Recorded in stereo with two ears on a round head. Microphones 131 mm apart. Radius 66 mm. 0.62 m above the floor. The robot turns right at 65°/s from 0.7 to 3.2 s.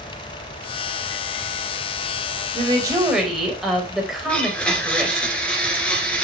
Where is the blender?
10° left (ahead or behind), 2.5 m.